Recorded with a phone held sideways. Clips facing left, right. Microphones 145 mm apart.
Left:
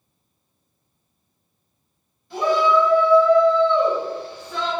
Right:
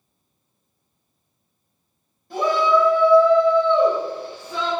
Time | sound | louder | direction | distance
2.3 | a shout | even | 40° right (ahead or behind) | 1.9 m